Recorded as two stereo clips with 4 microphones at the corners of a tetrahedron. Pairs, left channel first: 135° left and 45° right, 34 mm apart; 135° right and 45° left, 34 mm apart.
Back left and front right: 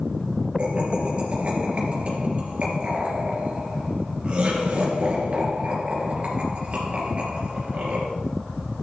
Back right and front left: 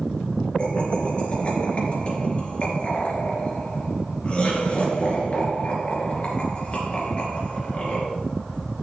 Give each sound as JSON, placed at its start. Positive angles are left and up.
{"t": 0.6, "sound": "laughter", "azimuth_deg": -95, "distance_m": 3.0}